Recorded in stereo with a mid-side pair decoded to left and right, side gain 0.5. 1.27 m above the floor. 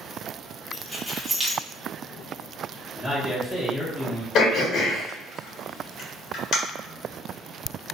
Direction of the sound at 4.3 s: 65° left.